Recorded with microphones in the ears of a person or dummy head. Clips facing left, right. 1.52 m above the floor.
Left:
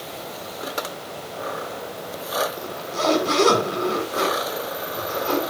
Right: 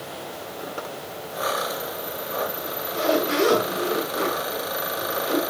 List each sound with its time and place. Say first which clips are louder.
2.6 s a zipper: left 1 dB; 70° left (ahead or behind), 6 m